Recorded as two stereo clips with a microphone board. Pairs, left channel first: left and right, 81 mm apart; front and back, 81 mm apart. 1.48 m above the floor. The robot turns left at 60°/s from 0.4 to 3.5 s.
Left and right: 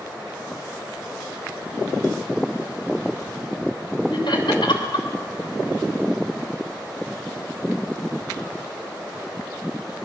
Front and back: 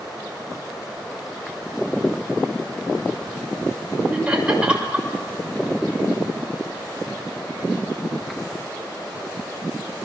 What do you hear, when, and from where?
4.1 s laughter: 100° left, 6.5 m